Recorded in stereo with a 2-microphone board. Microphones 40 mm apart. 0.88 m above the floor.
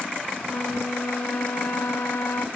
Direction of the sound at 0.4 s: 80° left.